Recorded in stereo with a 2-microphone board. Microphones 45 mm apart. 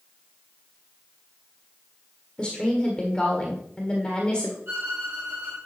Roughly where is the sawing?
No sawing in this recording.